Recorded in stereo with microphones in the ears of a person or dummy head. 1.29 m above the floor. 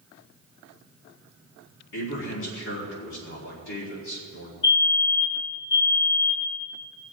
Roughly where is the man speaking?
Left.